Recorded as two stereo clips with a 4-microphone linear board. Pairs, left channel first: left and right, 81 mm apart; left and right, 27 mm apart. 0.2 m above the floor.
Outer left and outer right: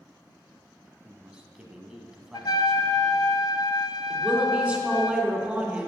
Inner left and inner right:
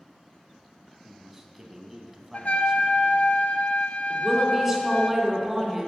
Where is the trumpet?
55° left (ahead or behind), 0.7 m.